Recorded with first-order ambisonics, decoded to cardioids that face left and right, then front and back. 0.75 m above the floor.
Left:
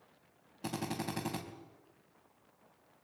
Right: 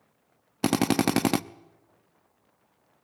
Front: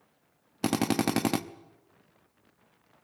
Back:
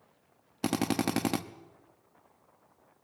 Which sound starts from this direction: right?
A drill, at 0.6 s.